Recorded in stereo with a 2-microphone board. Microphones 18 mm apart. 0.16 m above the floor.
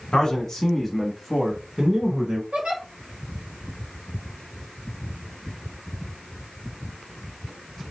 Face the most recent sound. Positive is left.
turn(degrees=-65)  # may be behind; listen again after turning